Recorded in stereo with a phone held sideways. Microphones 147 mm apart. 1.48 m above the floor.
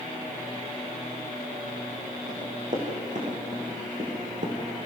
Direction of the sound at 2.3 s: 55° right (ahead or behind).